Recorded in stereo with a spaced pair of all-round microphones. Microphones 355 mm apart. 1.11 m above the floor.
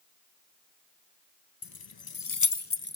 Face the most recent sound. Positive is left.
turn(degrees=25)  # may be behind; listen again after turning